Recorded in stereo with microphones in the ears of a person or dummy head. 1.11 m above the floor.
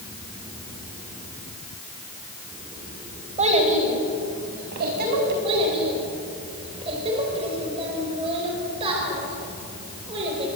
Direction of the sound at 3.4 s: 30° right (ahead or behind).